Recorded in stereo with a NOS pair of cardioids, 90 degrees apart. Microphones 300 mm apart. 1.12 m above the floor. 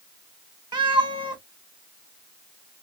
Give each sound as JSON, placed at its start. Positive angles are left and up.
{"t": 0.7, "sound": "a cat meowing", "azimuth_deg": -15, "distance_m": 0.8}